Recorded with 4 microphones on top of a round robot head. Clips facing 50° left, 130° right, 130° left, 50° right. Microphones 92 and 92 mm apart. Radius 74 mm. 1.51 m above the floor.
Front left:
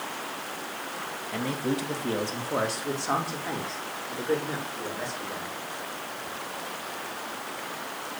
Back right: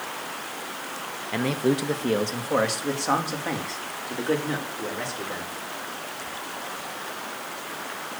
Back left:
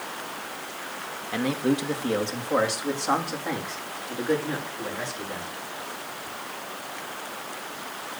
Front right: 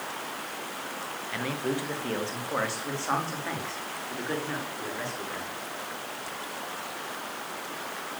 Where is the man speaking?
160° right, 1.6 m; by 5.5 s 155° right, 6 m.